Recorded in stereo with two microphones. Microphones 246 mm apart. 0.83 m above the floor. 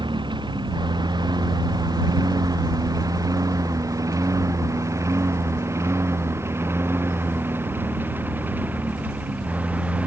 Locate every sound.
0.0 s a lawn mower: 15° right (ahead or behind); by 10.1 s 5° right (ahead or behind)